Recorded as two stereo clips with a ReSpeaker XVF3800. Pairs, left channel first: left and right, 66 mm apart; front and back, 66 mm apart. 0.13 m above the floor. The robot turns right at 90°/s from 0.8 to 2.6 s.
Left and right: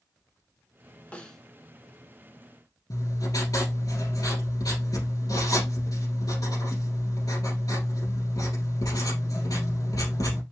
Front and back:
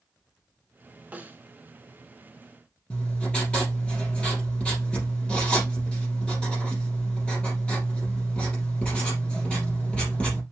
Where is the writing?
75° left, 4 m.